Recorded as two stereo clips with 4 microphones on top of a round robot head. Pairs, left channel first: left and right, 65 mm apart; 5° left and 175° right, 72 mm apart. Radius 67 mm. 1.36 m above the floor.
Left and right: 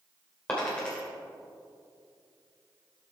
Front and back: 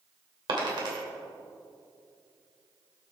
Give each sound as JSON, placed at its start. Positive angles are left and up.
{"t": 0.5, "sound": "a dropped coin", "azimuth_deg": 165, "distance_m": 2.5}